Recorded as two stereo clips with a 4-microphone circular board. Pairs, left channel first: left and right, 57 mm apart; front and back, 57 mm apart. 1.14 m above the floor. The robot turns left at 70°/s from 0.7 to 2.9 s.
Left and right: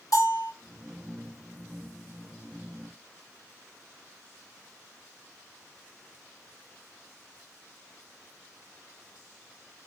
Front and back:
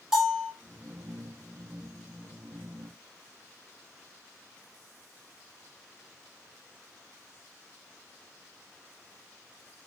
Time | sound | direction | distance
0.1 | a bell | 100° left | 2.5 m